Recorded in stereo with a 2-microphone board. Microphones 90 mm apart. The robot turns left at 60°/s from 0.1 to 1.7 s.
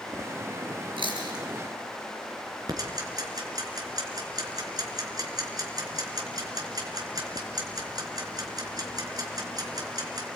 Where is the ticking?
45° right (ahead or behind), 3.5 m.